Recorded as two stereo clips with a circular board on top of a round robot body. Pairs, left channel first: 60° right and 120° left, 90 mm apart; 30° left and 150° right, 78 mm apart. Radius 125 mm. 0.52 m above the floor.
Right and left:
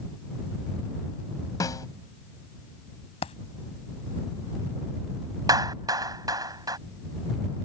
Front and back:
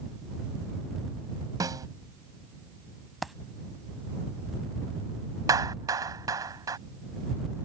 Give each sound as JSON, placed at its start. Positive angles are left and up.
{"t": 1.6, "sound": "a snare drum", "azimuth_deg": -110}
{"t": 3.2, "sound": "a dropped coin", "azimuth_deg": -60}
{"t": 5.5, "sound": "a clap", "azimuth_deg": 165}